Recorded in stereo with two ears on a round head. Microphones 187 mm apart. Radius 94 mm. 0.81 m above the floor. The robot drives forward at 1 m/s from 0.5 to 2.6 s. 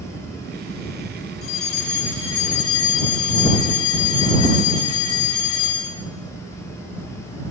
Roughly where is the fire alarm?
Left.